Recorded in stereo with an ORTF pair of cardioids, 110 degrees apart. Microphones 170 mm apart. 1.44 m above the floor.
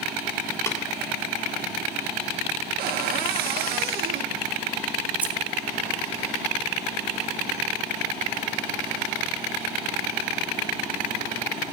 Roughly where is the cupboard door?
Ahead right.